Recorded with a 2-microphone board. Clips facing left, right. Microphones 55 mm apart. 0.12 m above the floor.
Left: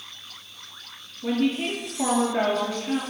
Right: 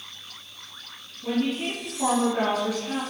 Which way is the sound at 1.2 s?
35° left (ahead or behind).